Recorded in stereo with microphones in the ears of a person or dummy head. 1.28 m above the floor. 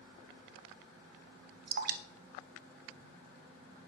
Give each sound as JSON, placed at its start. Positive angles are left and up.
{"t": 1.7, "sound": "dripping", "side_deg": -45, "distance_m": 0.6}